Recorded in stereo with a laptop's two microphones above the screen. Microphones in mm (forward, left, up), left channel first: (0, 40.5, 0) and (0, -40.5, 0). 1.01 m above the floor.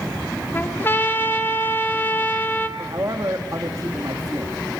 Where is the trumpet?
25° left (ahead or behind), 1.4 m.